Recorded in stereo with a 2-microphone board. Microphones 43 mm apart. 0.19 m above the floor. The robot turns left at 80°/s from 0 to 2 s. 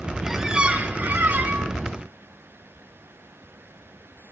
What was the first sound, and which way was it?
A squeak, 5° right.